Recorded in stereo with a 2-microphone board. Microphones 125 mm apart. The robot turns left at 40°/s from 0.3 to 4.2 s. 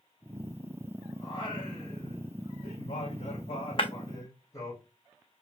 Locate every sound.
1.2 s singing: 145° left, 4 m; by 4.8 s 25° left, 4 m
3.8 s breaking glass: 45° left (ahead or behind), 0.8 m; by 3.9 s 40° left (ahead or behind), 0.8 m